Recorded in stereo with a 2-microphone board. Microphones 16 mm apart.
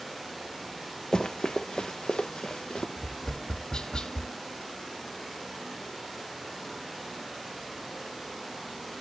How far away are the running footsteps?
About 0.8 m.